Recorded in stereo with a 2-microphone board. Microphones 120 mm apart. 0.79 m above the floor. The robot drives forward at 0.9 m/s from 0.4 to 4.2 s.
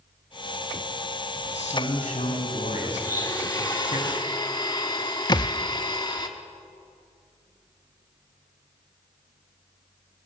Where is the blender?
25° left (ahead or behind), 3 m; by 6.3 s 40° left (ahead or behind), 2.5 m.